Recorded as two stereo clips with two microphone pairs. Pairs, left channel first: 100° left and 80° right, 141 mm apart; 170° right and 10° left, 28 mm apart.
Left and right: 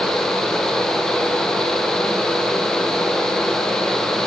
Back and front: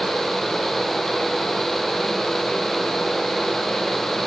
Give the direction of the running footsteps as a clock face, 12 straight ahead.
No running footsteps in this recording.